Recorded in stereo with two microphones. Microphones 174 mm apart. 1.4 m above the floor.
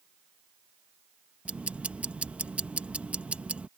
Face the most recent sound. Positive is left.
turn(degrees=-5)  # may be behind; listen again after turning